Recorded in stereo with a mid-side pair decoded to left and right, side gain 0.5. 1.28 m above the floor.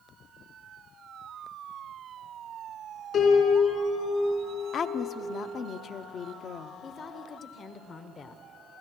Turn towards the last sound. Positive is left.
turn(degrees=45)